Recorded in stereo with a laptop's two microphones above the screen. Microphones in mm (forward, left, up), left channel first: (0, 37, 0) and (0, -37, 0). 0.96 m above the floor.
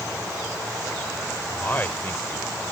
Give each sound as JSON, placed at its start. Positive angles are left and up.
{"t": 1.6, "sound": "a man speaking", "side_deg": 25}